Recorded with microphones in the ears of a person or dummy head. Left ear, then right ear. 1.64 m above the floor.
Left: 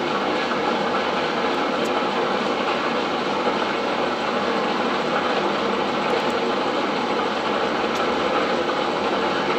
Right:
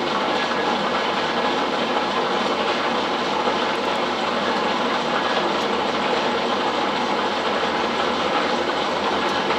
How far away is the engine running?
About 0.9 m.